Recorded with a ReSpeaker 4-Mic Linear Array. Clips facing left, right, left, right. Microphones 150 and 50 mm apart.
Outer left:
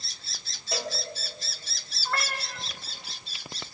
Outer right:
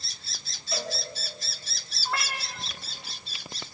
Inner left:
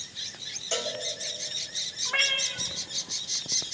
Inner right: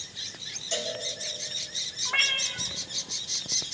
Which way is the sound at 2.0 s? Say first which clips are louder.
Outer left 1 dB, even; 10° right (ahead or behind).